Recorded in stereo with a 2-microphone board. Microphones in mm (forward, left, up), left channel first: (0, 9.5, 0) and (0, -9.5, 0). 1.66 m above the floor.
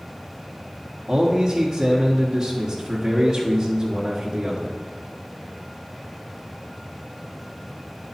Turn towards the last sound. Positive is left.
turn(degrees=-30)  # may be behind; listen again after turning